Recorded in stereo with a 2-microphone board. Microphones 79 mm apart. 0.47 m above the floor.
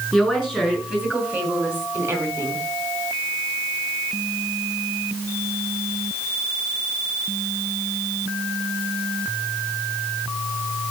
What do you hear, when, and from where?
0.1 s a woman speaking: 5° right (ahead or behind), 6 m; by 2.6 s 35° right (ahead or behind), 4 m